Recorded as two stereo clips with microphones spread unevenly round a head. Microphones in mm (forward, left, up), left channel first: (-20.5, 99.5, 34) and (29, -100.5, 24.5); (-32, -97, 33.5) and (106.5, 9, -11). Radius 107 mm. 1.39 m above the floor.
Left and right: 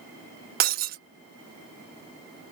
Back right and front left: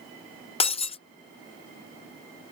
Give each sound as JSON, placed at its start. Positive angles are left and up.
{"t": 0.6, "sound": "breaking glass", "azimuth_deg": -115}